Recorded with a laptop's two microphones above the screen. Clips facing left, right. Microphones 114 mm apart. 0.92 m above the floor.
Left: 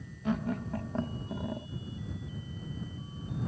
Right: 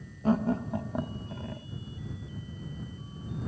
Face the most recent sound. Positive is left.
turn(degrees=25)  # may be behind; listen again after turning